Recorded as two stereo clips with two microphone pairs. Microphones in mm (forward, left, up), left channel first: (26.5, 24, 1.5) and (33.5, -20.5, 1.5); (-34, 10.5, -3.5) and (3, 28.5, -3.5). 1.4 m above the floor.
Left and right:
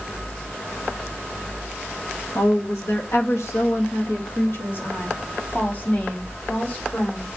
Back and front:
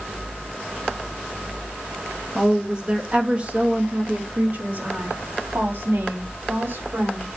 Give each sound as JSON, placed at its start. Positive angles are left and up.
{"t": 2.4, "sound": "a woman speaking", "azimuth_deg": 105, "distance_m": 2.5}